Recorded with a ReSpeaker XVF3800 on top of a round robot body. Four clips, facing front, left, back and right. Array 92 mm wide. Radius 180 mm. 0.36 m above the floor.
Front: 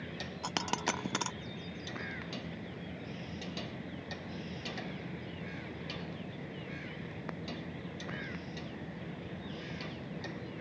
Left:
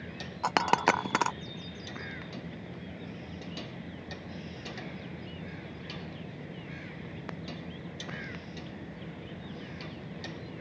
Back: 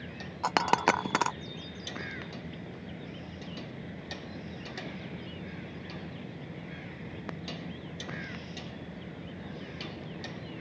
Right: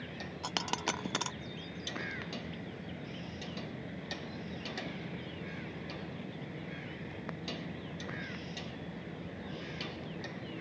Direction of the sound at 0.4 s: 130° left.